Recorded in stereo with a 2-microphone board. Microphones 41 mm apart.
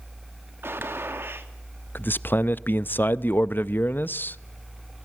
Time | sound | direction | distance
0.6 | a gunshot | 65° right (ahead or behind) | 2 m
1.9 | a man speaking | 50° left (ahead or behind) | 0.5 m